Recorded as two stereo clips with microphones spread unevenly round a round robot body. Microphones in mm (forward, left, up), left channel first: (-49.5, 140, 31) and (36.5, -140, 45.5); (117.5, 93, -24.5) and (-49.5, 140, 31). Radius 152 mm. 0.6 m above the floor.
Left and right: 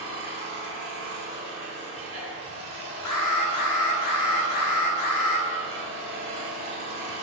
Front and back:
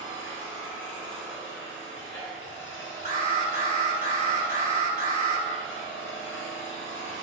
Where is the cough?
No cough in this recording.